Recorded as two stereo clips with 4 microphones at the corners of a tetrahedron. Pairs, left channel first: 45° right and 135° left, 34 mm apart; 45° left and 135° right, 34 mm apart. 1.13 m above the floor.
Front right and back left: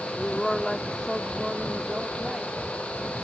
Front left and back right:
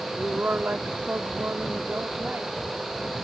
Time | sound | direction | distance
0.2 | a woman speaking | 120° right | ?